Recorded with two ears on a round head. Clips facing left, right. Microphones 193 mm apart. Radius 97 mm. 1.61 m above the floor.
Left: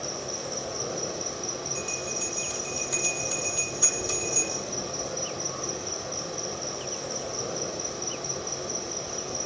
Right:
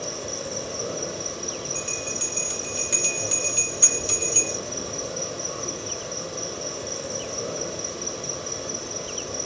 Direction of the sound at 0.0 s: 55° right (ahead or behind).